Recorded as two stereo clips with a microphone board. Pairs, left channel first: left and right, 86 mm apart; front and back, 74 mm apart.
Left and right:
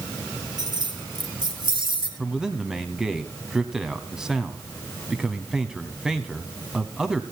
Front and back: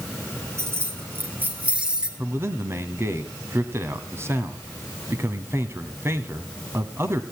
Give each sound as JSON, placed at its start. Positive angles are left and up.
{"t": 0.6, "sound": "keys jangling", "azimuth_deg": -130, "distance_m": 3.5}
{"t": 2.2, "sound": "a man speaking", "azimuth_deg": -170, "distance_m": 1.2}